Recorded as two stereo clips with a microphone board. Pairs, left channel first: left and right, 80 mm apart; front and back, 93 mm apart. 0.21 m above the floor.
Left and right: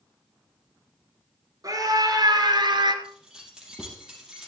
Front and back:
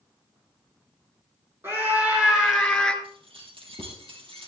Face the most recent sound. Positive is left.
turn(degrees=-170)